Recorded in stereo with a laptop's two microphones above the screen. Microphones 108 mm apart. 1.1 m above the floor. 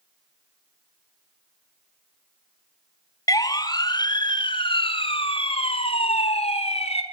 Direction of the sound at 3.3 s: 35° left (ahead or behind).